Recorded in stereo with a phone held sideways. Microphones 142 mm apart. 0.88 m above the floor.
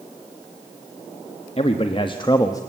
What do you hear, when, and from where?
1.6 s a man speaking: 45° left (ahead or behind), 1.5 m; by 2.6 s 25° left (ahead or behind), 1.3 m